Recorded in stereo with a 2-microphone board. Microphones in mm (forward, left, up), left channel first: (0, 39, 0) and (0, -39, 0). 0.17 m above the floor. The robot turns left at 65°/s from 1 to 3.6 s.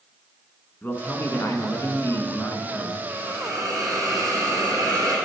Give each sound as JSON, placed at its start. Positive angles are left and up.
{"t": 0.8, "sound": "a man speaking", "azimuth_deg": 140, "distance_m": 1.4}
{"t": 3.1, "sound": "a hiss", "azimuth_deg": -45, "distance_m": 2.5}